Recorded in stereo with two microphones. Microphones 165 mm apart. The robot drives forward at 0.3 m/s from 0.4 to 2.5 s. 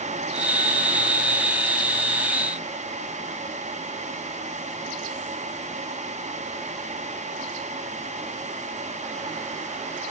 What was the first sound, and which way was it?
Only background noise.